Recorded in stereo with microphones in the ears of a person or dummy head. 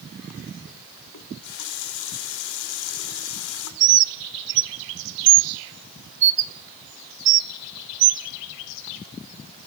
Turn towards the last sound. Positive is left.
turn(degrees=-55)  # may be behind; listen again after turning